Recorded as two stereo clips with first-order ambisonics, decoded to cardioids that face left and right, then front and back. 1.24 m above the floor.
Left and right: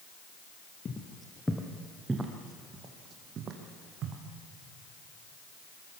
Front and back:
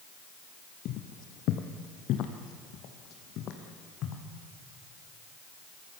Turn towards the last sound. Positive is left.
turn(degrees=-50)